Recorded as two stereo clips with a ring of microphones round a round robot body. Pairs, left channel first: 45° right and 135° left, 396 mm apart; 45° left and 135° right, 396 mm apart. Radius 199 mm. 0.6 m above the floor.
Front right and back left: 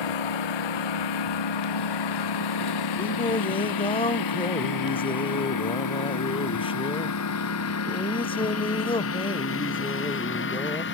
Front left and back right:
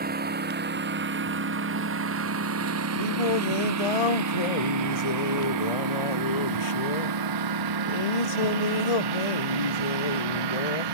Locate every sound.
0.0 s a lawn mower: 65° right; by 10.9 s 110° right
3.0 s singing: 35° left